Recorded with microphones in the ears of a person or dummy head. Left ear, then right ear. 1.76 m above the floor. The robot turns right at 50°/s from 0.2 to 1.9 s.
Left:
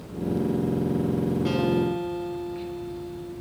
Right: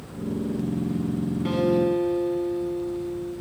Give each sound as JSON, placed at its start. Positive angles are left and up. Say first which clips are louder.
{"t": 1.4, "sound": "a guitar", "louder": "right 5 dB", "side_deg": -15, "distance_m": 4.0}